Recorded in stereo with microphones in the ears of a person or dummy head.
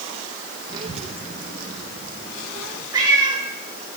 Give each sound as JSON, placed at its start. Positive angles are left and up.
{"t": 0.7, "sound": "a child speaking", "side_deg": -25, "distance_m": 0.7}
{"t": 2.9, "sound": "a cat meowing", "side_deg": -25, "distance_m": 2.5}